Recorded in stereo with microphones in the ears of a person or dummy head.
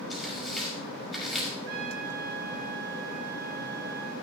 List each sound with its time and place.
0.1 s tearing paper: 5° right (ahead or behind), 5.5 m
1.7 s a trumpet: 65° right (ahead or behind), 7.5 m